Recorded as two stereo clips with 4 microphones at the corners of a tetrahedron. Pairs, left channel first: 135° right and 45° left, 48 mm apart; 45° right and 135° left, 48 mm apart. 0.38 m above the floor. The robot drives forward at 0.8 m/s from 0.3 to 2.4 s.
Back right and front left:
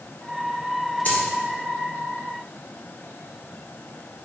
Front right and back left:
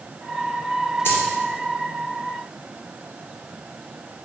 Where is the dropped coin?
85° right, 2.5 m; by 1.2 s 90° right, 2.5 m.